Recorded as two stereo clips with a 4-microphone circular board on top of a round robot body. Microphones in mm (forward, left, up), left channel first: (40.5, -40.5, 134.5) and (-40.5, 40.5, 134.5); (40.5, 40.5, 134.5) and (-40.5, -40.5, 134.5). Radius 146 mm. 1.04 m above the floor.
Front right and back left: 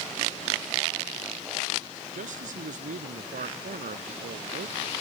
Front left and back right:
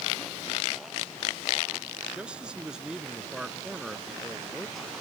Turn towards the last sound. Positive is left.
turn(degrees=135)